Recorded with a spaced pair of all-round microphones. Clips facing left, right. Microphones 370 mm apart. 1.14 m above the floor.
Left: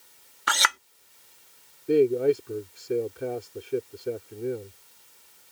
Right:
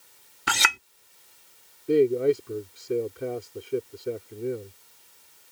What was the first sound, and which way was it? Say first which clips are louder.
A clink: right 1 dB; 40° right (ahead or behind).